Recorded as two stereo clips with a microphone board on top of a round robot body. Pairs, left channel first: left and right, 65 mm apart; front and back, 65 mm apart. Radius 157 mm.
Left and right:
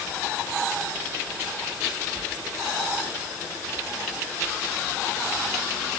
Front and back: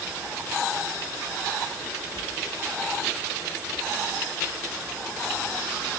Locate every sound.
Only background noise.